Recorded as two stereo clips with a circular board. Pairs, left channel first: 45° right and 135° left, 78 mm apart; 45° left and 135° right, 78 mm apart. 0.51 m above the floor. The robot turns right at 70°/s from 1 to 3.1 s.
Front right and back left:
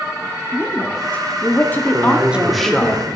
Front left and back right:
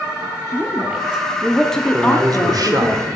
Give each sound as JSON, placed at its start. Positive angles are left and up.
{"t": 0.5, "sound": "a woman speaking", "azimuth_deg": -80, "distance_m": 0.7}
{"t": 1.9, "sound": "a man speaking", "azimuth_deg": -175, "distance_m": 1.2}